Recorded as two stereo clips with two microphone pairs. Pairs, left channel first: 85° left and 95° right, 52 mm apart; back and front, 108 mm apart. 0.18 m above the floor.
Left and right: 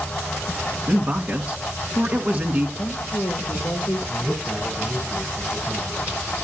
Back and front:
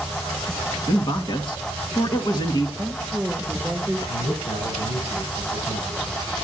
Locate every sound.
0.9 s a man speaking: 150° right, 1.8 m
2.8 s a woman speaking: 80° left, 8 m
4.1 s a man speaking: 175° right, 8.5 m